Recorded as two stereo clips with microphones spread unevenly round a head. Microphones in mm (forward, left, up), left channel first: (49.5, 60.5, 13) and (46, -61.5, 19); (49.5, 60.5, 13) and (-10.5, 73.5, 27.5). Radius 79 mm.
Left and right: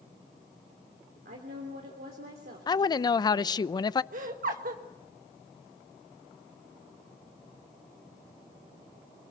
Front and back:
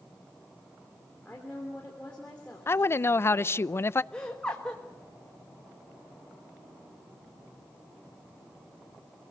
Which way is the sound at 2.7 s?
30° left.